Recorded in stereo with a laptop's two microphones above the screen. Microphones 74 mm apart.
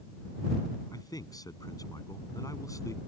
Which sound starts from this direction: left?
A man speaking, at 0.9 s.